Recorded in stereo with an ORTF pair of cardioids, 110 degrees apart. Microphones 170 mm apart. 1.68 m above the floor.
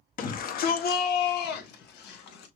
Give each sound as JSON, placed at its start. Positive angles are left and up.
{"t": 0.2, "sound": "a shout", "azimuth_deg": 55, "distance_m": 1.3}